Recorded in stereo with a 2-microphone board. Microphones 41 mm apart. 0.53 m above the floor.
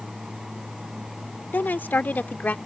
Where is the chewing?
No chewing in this recording.